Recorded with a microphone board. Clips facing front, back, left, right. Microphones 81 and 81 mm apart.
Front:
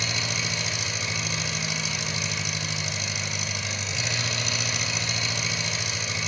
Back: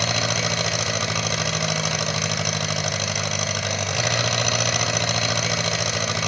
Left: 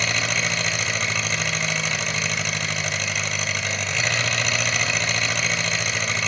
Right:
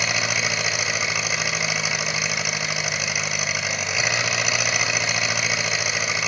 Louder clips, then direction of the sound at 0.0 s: Back 7 dB, even; 170° right.